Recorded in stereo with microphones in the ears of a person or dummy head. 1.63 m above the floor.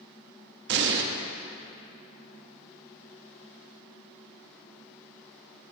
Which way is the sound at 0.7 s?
65° right (ahead or behind).